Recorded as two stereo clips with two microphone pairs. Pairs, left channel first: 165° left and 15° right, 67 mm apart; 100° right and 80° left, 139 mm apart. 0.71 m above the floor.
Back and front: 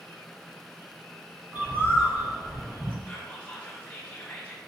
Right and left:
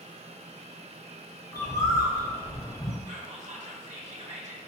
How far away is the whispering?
About 1.1 m.